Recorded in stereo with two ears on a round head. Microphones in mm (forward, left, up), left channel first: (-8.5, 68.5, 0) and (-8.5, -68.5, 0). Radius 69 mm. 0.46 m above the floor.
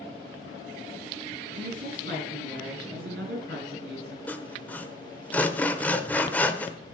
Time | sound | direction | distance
1.5 | a woman speaking | 75° right (ahead or behind) | 6 m
4.3 | sawing | 10° left (ahead or behind) | 1.0 m